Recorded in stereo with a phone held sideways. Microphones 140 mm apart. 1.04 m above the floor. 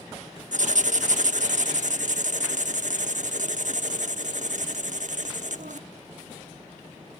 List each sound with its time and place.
0.5 s writing: 65° right (ahead or behind), 0.9 m